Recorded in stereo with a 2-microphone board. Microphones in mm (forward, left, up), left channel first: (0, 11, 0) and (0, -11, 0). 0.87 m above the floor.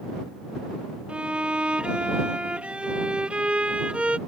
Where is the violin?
65° right (ahead or behind).